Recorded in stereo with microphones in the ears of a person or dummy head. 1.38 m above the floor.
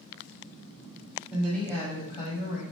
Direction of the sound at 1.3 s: 10° right (ahead or behind).